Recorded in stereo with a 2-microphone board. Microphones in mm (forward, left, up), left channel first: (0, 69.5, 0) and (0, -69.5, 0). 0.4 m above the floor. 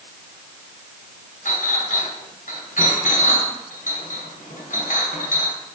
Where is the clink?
75° left (ahead or behind), 2.5 m.